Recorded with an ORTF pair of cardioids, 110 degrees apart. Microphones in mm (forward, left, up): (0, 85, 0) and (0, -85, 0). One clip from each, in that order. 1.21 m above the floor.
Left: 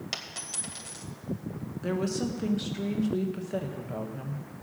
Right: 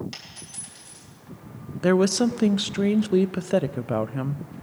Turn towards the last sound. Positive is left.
turn(degrees=-60)